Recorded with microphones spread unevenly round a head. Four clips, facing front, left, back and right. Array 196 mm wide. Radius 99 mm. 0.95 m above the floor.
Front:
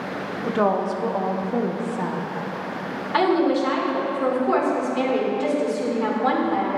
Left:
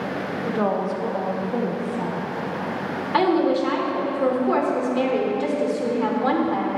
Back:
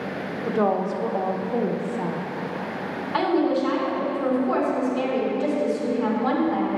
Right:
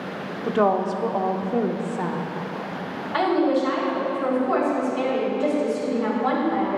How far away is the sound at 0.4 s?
About 0.7 m.